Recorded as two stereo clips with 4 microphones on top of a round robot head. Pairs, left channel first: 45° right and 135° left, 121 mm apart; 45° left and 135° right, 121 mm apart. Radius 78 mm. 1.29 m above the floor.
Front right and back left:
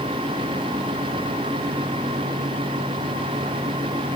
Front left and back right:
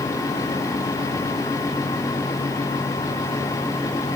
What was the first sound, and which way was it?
Only background noise.